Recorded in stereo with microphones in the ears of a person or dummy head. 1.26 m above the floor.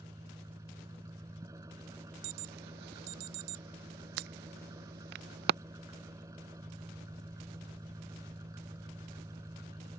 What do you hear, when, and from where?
0.0 s an engine running: 15° right (ahead or behind)
2.2 s an alarm: 55° right (ahead or behind)